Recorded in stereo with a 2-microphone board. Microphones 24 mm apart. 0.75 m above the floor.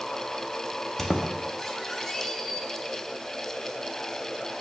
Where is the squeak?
10° left (ahead or behind), 0.6 m.